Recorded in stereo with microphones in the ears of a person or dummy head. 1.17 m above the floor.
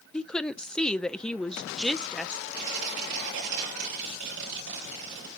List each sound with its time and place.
0.1 s a woman speaking: centre (ahead or behind), 0.6 m
2.5 s tearing paper: 70° right (ahead or behind), 7.5 m